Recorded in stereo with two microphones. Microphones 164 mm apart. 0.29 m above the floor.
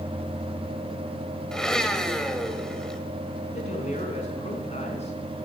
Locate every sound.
1.5 s a blender: 5° left (ahead or behind), 1.2 m
3.5 s a man speaking: 45° left (ahead or behind), 3.5 m